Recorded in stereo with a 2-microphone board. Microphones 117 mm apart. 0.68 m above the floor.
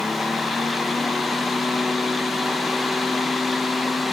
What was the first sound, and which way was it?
Only background noise.